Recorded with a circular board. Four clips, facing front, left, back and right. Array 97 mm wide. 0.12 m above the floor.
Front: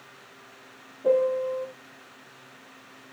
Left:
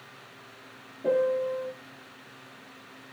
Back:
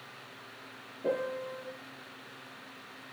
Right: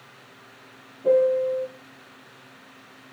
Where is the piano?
120° left, 1.3 m.